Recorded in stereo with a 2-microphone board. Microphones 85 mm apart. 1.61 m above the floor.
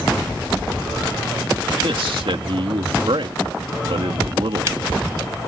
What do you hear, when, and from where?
1.8 s a man speaking: 75° right (ahead or behind)